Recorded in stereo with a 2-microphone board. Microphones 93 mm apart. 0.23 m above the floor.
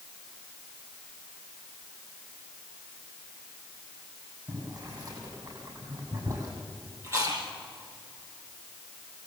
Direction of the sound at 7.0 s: 30° right (ahead or behind).